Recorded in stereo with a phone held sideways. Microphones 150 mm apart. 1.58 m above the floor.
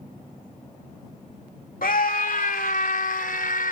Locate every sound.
1.8 s a scream: 80° left